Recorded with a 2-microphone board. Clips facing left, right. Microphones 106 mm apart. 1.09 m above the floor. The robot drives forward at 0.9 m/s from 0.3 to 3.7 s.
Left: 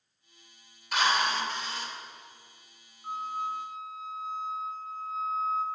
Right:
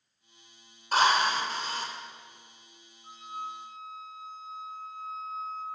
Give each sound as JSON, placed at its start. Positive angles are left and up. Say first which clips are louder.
{"t": 0.9, "sound": "a drill", "louder": "right 3 dB", "side_deg": -40, "distance_m": 4.0}
{"t": 3.0, "sound": "a flute", "louder": "left 6 dB", "side_deg": 65, "distance_m": 2.5}